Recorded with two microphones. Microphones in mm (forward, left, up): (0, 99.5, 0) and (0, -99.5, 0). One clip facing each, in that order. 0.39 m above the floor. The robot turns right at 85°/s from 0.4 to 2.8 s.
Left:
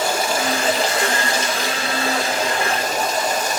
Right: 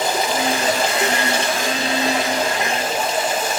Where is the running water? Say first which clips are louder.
Right 1 dB; 160° right, 4 m; by 3.6 s 45° left, 4 m.